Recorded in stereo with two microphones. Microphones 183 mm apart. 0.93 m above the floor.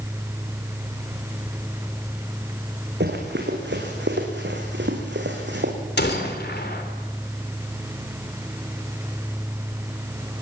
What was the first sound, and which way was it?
Running footsteps, 70° right (ahead or behind).